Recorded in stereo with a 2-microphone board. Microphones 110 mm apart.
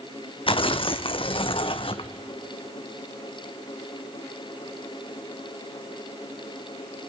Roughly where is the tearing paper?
Left.